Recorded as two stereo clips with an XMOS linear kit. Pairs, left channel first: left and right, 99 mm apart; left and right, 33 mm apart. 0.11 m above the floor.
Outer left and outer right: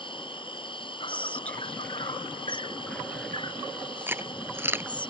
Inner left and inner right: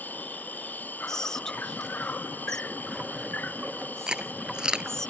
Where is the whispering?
15° left (ahead or behind).